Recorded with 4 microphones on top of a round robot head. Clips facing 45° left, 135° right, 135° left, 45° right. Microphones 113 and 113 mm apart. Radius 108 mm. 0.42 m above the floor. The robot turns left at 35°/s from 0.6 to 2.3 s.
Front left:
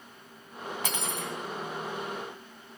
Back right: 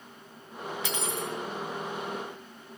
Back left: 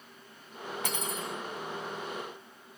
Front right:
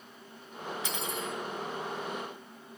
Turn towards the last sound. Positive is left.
turn(degrees=40)